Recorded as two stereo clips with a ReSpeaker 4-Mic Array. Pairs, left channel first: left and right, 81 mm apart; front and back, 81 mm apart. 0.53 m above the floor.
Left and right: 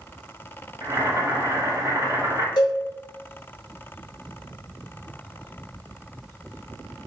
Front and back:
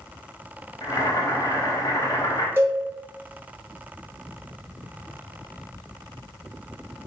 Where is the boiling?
40° right, 0.6 m.